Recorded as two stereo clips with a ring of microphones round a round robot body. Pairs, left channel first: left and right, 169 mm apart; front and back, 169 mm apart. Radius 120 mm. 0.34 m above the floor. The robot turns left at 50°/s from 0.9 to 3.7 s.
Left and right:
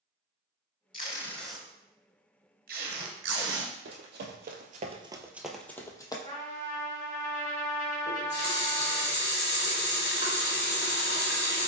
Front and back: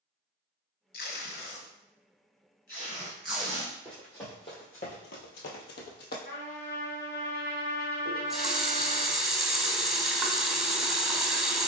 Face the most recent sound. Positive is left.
turn(degrees=95)